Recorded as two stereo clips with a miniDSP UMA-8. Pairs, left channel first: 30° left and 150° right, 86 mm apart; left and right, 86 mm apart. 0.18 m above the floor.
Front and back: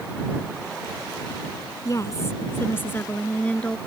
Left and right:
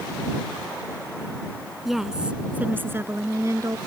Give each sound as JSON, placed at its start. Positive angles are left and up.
{"t": 1.9, "sound": "a woman speaking", "azimuth_deg": 0}